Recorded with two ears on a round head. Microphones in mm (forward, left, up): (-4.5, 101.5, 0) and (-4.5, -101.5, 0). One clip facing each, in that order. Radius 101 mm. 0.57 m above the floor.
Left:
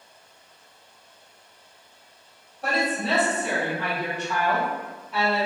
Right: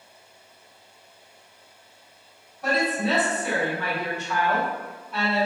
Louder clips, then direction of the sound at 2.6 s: Right 2 dB; 25° left (ahead or behind).